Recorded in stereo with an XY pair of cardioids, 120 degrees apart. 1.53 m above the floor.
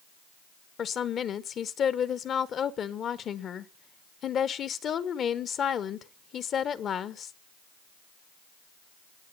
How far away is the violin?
No violin in this recording.